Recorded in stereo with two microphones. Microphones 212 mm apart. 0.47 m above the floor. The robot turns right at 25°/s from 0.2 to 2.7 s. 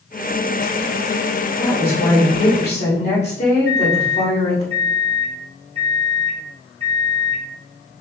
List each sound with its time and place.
1.6 s a woman speaking: 45° left (ahead or behind), 1.9 m; by 4.7 s 50° left (ahead or behind), 1.9 m
3.6 s a microwave: 30° right (ahead or behind), 1.4 m